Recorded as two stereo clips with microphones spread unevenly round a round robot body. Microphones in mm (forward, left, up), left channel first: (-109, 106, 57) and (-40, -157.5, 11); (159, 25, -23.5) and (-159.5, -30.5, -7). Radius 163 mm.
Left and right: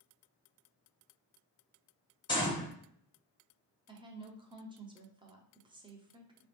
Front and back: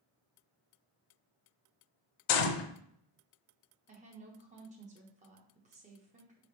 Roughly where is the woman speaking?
Behind right.